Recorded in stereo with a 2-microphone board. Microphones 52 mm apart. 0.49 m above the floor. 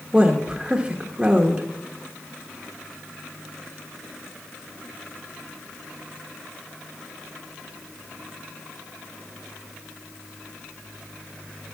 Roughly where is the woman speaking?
Centre.